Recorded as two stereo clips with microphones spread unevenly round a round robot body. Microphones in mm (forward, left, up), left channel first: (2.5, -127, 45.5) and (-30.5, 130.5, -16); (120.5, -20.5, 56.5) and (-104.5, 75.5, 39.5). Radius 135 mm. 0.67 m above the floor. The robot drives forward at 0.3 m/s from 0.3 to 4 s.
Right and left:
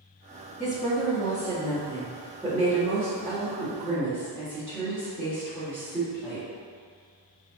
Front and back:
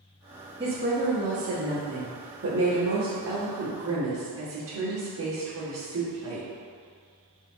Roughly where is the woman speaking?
Behind.